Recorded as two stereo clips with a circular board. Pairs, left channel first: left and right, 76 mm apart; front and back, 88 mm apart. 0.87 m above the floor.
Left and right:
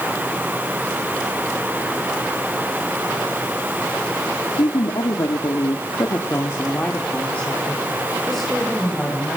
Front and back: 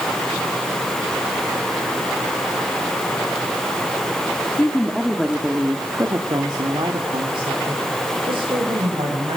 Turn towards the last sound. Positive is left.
turn(degrees=-175)